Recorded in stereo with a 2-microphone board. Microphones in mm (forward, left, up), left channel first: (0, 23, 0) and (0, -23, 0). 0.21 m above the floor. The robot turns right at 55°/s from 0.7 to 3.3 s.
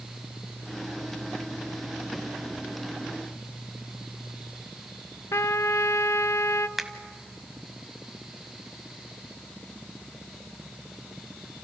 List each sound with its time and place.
5.3 s a trumpet: 85° left, 0.6 m
6.8 s a finger snap: 5° right (ahead or behind), 1.2 m